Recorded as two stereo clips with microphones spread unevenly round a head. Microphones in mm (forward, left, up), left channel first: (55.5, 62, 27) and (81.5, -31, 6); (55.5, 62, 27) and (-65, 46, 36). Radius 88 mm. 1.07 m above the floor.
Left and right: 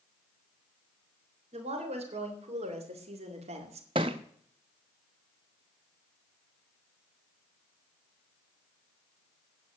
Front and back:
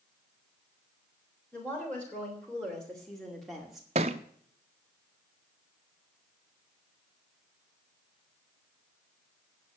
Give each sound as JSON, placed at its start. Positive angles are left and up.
{"t": 1.5, "sound": "a woman speaking", "azimuth_deg": -75, "distance_m": 3.5}
{"t": 4.0, "sound": "a thud", "azimuth_deg": -135, "distance_m": 0.5}